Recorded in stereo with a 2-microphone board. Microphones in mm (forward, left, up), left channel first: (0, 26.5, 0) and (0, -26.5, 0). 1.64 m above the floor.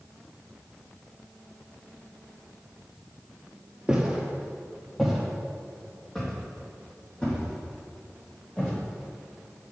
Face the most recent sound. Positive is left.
turn(degrees=20)  # may be behind; listen again after turning